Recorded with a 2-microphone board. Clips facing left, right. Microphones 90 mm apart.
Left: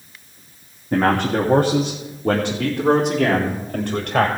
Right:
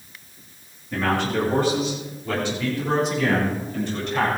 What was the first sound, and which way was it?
A man speaking, 50° left (ahead or behind).